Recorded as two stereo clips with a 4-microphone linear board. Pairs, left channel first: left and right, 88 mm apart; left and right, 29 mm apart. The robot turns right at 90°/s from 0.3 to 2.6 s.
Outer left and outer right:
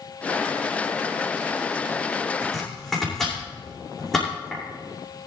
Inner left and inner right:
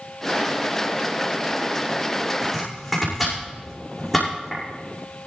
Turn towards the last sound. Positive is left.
turn(degrees=5)  # may be behind; listen again after turning